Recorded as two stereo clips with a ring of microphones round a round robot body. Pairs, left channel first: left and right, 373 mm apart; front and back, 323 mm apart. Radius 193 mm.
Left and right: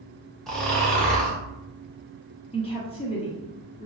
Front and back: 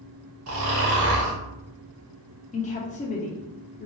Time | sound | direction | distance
0.5 | snoring | straight behind | 1.3 m
2.5 | a woman speaking | 35° left | 0.8 m